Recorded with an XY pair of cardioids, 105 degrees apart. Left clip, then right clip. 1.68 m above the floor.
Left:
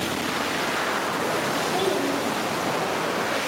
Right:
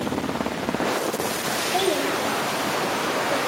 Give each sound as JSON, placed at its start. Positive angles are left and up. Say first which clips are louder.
{"t": 1.7, "sound": "a child speaking", "louder": "right 1 dB", "azimuth_deg": -25, "distance_m": 2.5}